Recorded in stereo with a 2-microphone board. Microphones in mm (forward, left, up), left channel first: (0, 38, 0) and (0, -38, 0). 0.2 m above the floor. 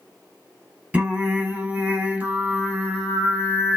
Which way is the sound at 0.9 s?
20° right (ahead or behind).